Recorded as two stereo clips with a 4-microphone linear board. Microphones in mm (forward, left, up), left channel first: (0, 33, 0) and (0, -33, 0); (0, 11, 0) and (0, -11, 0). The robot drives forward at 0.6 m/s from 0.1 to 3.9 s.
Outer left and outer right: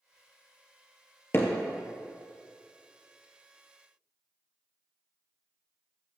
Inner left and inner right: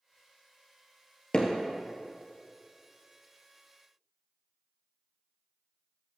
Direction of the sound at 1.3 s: 40° left (ahead or behind).